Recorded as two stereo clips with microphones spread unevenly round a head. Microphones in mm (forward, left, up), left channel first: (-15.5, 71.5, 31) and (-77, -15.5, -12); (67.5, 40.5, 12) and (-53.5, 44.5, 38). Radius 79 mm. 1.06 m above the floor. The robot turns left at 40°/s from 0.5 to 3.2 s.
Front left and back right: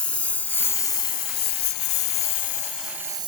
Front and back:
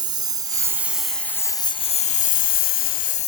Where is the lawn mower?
130° left; by 3.3 s 55° right.